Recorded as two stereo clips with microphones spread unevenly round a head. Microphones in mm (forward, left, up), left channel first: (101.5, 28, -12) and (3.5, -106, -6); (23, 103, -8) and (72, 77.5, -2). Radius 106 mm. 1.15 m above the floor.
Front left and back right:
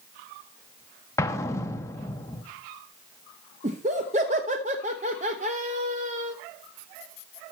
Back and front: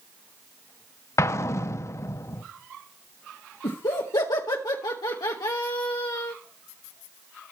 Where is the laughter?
170° left, 0.7 m.